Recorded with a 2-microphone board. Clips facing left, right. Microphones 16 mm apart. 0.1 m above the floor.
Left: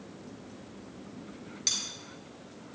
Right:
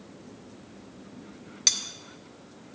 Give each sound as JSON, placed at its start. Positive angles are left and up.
{"t": 1.7, "sound": "cutlery clinking", "side_deg": -40, "distance_m": 0.9}